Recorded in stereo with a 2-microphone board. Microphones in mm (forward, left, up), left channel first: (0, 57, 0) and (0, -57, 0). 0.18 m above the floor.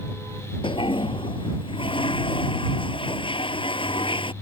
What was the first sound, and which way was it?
A toilet flushing, 50° left (ahead or behind).